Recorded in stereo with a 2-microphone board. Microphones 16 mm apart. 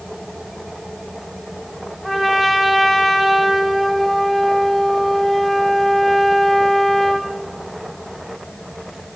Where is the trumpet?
5° left (ahead or behind), 1.1 m.